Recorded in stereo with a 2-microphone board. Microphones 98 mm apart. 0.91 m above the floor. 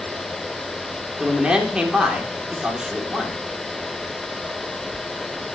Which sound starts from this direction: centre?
A man speaking, at 1.2 s.